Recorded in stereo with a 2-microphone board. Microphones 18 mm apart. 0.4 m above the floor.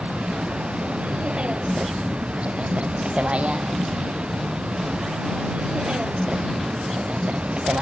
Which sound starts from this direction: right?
A vehicle, at 0.0 s.